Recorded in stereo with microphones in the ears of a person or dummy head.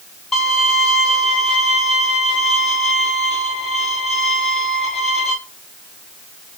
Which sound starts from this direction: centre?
A violin, at 0.3 s.